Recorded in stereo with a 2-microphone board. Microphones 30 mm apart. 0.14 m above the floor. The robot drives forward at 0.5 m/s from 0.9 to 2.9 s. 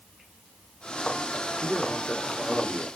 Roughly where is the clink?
No clink in this recording.